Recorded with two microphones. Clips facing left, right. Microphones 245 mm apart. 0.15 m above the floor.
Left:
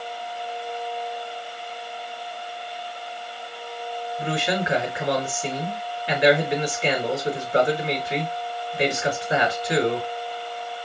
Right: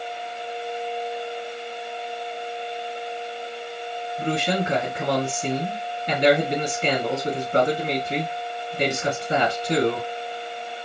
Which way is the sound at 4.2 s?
40° right (ahead or behind).